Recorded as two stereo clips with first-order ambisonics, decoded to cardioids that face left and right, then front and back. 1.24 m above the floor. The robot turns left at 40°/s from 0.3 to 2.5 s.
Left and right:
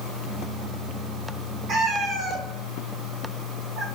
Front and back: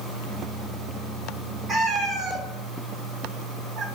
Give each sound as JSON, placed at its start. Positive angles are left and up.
{"t": 1.7, "sound": "a cat meowing", "azimuth_deg": -120, "distance_m": 0.8}